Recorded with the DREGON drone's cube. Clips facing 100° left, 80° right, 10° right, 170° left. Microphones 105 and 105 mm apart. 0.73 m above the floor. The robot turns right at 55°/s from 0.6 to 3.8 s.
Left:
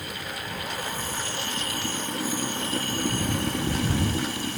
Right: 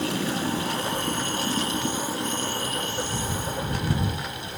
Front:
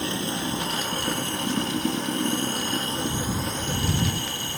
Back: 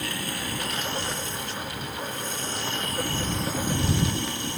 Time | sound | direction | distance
0.0 | running water | 75° right | ?